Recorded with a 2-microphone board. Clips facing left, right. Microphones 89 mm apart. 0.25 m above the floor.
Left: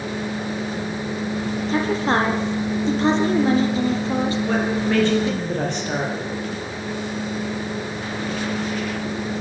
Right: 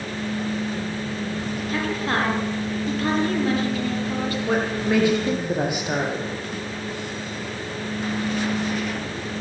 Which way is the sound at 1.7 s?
30° left (ahead or behind).